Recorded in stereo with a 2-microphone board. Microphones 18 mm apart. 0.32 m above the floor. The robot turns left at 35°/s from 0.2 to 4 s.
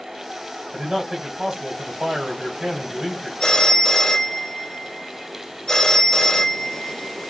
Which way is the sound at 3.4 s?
45° left (ahead or behind).